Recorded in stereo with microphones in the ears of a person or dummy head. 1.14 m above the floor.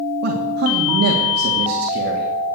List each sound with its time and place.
0.2 s a man speaking: 60° right (ahead or behind), 2.5 m